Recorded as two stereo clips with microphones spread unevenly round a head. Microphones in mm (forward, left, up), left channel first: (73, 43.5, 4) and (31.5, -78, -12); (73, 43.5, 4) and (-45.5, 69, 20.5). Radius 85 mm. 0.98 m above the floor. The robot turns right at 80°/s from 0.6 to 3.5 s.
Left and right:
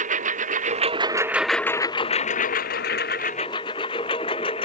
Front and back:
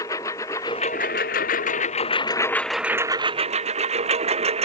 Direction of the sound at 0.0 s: 85° right.